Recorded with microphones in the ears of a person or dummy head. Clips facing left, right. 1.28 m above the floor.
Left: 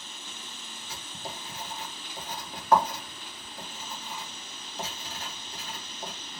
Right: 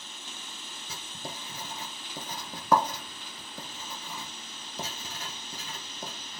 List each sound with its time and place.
0.9 s writing: 70° right (ahead or behind), 0.9 m